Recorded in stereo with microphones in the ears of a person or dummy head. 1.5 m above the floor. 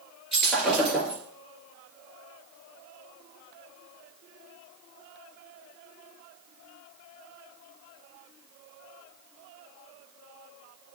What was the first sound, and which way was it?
Breaking glass, centre (ahead or behind).